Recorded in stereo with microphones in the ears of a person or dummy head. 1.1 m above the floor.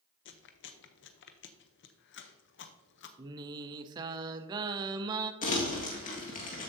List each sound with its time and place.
0.2 s chewing: 60° left (ahead or behind), 0.8 m
3.2 s singing: 20° right (ahead or behind), 0.7 m
5.4 s crumpling: 40° left (ahead or behind), 1.8 m